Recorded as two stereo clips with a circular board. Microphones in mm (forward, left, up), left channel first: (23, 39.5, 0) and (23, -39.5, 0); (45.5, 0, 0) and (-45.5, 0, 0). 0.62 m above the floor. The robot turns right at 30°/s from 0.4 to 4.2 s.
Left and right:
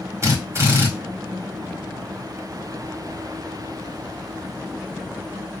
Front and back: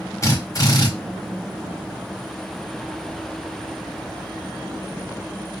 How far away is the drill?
About 1.6 m.